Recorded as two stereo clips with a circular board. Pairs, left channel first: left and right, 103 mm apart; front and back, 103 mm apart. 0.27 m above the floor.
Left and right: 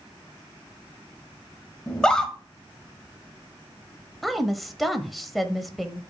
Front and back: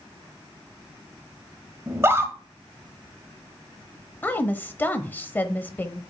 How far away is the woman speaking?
About 0.9 m.